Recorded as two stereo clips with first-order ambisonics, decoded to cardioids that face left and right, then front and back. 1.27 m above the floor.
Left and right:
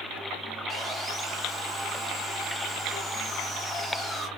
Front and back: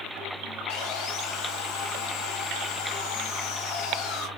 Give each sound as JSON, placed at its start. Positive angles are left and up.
{"t": 0.7, "sound": "sawing", "azimuth_deg": -10, "distance_m": 0.8}